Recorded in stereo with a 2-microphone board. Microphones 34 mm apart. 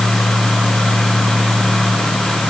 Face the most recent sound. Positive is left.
No sound to turn to.